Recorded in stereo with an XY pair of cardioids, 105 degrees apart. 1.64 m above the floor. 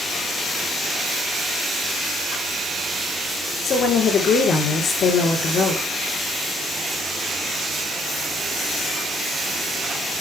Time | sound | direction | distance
3.6 | a woman speaking | 60° left | 4 m